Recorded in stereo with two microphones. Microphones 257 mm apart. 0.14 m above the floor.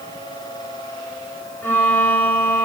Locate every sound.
1.6 s a violin: 5° left (ahead or behind), 1.9 m